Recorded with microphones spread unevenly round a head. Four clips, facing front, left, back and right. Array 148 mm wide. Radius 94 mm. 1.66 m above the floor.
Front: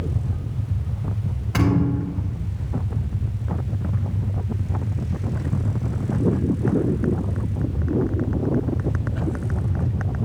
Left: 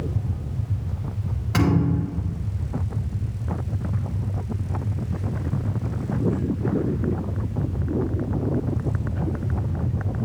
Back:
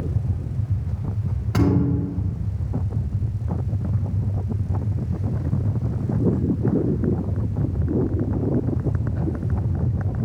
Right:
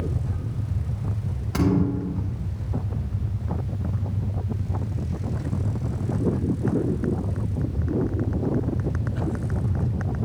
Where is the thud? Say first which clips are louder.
Left 1 dB, back 1 dB; 175° right, 1.3 m.